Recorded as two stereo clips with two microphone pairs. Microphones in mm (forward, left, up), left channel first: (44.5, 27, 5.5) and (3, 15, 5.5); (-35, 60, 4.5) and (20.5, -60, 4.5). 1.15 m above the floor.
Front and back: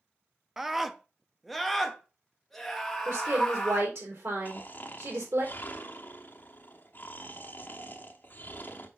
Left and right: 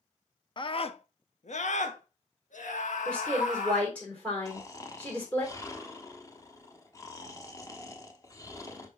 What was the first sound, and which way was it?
A scream, 115° left.